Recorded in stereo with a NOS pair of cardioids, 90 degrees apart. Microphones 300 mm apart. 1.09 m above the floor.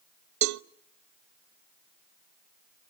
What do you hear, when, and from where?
0.4 s a cowbell: 70° right, 0.7 m